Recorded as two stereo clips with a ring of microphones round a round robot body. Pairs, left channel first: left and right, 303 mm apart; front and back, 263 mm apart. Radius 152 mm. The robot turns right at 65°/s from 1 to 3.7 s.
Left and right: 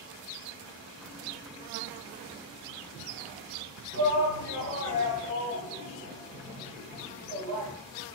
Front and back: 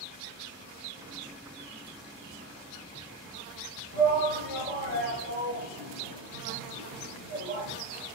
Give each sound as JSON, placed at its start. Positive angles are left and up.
{"t": 3.9, "sound": "a shout", "azimuth_deg": -140, "distance_m": 1.7}